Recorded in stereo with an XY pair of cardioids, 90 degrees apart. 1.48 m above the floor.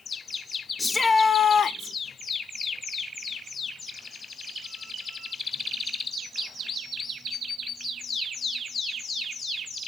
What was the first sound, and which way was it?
A shout, 25° left.